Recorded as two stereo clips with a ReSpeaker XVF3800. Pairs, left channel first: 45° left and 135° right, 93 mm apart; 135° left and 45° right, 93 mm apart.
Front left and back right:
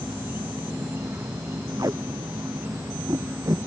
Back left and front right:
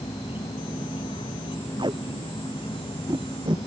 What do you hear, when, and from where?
0.0 s an insect: 155° left
1.8 s tape being pulled: 80° right